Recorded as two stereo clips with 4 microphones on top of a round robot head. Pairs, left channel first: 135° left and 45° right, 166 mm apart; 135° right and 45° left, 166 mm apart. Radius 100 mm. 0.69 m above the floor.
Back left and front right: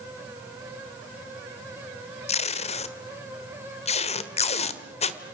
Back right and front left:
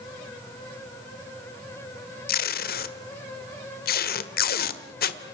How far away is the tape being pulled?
About 1.5 m.